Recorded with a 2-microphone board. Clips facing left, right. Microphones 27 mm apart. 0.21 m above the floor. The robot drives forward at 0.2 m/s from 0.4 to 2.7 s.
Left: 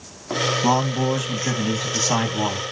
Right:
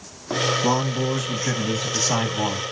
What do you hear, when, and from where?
0.6 s a man speaking: 25° left (ahead or behind), 1.0 m; by 2.6 s 20° left (ahead or behind), 1.2 m